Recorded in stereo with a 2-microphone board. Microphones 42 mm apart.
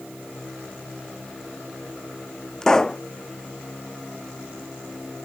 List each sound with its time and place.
2.6 s a pop: 15° left (ahead or behind)